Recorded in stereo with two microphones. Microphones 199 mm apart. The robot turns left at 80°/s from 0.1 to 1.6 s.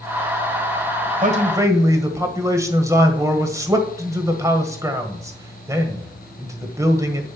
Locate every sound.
1.2 s a man speaking: 130° right, 1.6 m; by 7.3 s 165° right, 1.6 m